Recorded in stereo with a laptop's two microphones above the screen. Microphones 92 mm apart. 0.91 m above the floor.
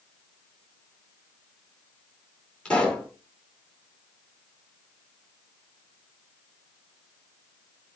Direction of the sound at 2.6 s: 10° left (ahead or behind).